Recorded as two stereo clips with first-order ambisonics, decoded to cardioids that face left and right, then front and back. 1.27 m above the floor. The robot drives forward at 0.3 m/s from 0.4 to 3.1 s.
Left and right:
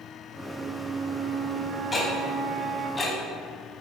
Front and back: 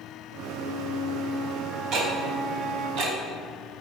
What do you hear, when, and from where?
0.6 s a flute: 45° right, 0.5 m; by 2.9 s 145° right, 0.6 m
1.9 s ticking: 165° left, 1.3 m; by 3.2 s 170° left, 1.6 m